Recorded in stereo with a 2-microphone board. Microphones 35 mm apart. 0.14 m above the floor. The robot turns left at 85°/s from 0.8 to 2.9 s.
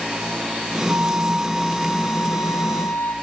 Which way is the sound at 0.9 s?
110° right.